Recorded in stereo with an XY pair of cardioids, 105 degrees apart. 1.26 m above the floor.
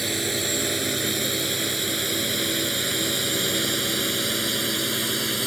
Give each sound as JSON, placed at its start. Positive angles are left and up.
{"t": 0.0, "sound": "a drone", "azimuth_deg": -10}